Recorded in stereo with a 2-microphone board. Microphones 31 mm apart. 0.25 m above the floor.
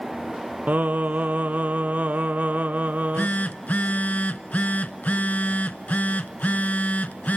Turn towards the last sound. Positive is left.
turn(degrees=70)  # may be behind; listen again after turning